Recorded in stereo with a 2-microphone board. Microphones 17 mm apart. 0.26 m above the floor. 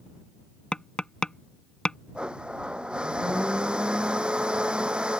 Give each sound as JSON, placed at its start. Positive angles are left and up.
{"t": 0.7, "sound": "tapping", "side_deg": 65}
{"t": 2.1, "sound": "a blender", "side_deg": -85}